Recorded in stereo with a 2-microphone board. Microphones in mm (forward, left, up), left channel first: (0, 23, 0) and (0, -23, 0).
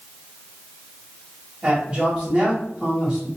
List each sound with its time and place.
1.6 s a man speaking: 30° right (ahead or behind), 1.7 m